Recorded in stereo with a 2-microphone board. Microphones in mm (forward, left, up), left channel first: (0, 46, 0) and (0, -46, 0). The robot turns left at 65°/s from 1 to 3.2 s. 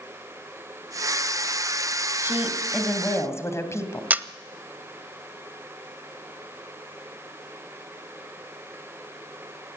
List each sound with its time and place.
2.2 s a woman speaking: 150° right, 2.5 m; by 4.0 s 145° left, 2.5 m
4.1 s a camera shutter: 20° right (ahead or behind), 0.6 m